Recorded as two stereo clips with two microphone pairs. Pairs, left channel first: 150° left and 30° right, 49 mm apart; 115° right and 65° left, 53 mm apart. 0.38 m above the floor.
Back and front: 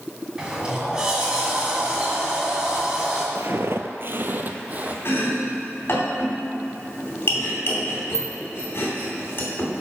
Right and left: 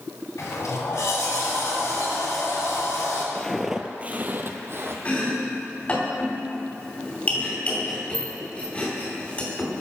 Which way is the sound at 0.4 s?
105° right.